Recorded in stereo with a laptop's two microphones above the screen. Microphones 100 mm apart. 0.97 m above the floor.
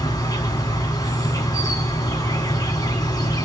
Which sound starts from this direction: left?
An insect, at 0.0 s.